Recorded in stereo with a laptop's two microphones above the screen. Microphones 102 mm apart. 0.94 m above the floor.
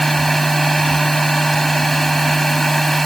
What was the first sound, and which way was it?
A machine running, 5° left (ahead or behind).